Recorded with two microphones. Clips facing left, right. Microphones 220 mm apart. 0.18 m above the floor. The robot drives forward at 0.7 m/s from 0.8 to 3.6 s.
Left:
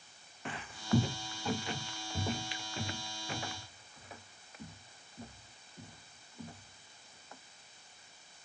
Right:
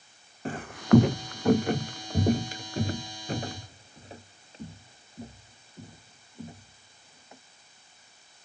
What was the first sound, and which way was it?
Footsteps, 40° right (ahead or behind).